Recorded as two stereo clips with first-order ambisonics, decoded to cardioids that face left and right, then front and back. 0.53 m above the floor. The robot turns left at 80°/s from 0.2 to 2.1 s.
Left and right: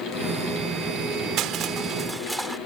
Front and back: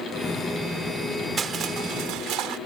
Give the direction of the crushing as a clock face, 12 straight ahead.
4 o'clock.